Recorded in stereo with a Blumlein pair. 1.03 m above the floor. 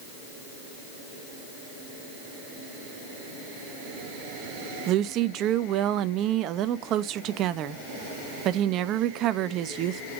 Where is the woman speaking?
35° right, 0.6 m.